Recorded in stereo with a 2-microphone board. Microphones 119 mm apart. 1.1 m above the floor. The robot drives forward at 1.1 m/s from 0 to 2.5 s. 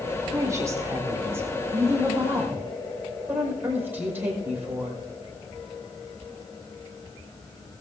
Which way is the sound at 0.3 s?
30° right (ahead or behind).